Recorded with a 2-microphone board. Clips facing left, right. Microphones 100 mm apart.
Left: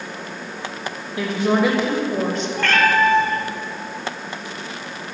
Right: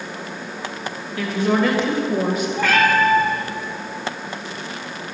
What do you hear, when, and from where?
1.2 s a woman speaking: 25° left (ahead or behind), 1.4 m; by 2.5 s 10° right (ahead or behind), 1.4 m
2.6 s a cat meowing: 10° right (ahead or behind), 1.6 m